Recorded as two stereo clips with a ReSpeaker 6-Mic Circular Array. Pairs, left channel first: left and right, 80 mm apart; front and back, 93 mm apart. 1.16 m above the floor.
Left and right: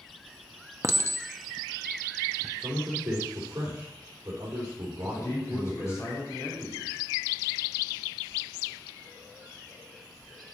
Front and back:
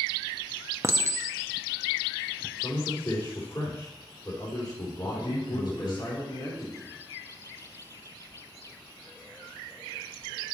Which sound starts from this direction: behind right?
A clink, at 0.8 s.